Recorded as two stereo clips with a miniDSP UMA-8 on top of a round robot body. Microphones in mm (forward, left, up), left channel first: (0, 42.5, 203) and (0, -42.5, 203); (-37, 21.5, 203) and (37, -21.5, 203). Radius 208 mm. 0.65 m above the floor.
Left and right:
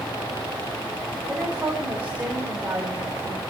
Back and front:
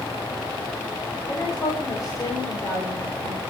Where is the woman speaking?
160° right, 6 m.